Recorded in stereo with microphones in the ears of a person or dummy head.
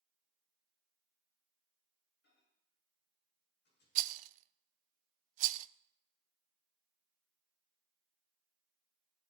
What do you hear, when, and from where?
2.2 s a microwave: 65° left (ahead or behind), 9 m
4.0 s a rattle: 50° right (ahead or behind), 0.5 m